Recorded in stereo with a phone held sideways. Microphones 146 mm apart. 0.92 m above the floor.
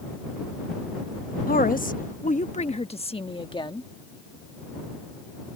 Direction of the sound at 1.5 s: 70° left (ahead or behind).